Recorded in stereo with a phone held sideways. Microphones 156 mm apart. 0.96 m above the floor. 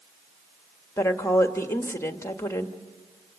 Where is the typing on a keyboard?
I don't hear typing on a keyboard.